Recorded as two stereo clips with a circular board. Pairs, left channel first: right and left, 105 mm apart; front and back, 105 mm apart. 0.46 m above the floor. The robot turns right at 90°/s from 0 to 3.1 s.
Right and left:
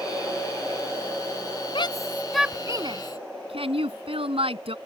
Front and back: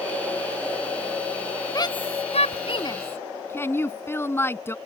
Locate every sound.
1.8 s a shout: 55° right; by 4.8 s 65° left